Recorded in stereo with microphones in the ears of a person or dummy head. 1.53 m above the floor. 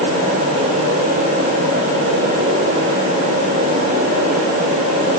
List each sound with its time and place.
Only background noise.